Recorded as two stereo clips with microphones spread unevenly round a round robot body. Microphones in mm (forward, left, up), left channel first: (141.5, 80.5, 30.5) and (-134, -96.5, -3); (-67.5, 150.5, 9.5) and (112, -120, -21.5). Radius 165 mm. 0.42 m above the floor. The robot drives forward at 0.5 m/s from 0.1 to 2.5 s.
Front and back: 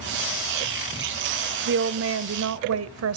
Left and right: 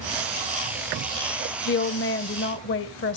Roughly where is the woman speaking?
Behind.